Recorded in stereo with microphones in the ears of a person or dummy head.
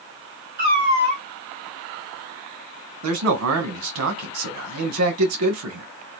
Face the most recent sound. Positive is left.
turn(degrees=-80)